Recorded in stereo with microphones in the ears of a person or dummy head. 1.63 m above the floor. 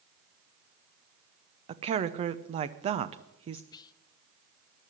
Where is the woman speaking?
35° right (ahead or behind), 0.7 m.